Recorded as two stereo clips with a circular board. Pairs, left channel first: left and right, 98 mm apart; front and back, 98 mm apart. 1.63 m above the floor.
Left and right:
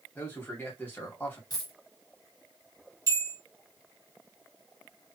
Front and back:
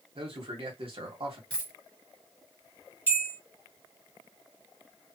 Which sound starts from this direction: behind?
A man speaking, at 0.1 s.